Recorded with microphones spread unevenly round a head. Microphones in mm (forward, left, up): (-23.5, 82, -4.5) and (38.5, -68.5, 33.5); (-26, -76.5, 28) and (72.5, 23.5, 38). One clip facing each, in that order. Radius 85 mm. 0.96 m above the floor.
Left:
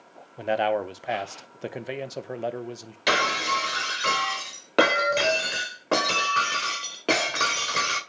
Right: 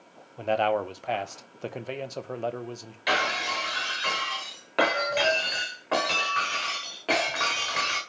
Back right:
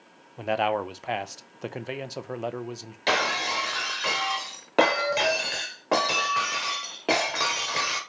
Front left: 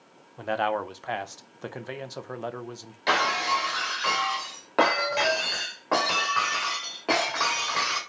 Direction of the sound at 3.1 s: 155° left.